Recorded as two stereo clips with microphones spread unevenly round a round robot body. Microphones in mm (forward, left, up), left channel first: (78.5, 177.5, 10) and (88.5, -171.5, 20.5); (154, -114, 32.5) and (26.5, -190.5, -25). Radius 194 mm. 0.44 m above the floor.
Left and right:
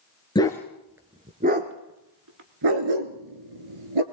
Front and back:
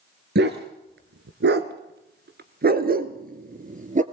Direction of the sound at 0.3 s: 170° left.